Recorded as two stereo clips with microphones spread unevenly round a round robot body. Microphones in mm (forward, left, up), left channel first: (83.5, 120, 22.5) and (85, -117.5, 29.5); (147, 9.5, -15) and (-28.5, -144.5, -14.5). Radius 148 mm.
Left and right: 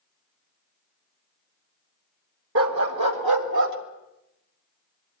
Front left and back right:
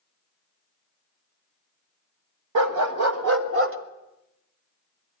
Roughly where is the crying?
No crying in this recording.